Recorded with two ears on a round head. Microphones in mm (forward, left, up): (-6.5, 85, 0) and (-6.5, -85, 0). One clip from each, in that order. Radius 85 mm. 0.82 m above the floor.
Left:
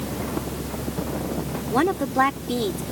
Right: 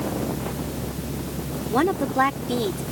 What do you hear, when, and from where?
1.7 s a woman speaking: 5° left (ahead or behind)